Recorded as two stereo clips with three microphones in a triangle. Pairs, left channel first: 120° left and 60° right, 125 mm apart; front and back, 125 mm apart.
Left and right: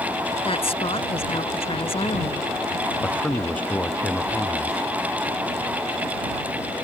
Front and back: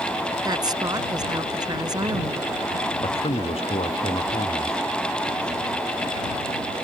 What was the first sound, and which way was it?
A woman speaking, 135° left.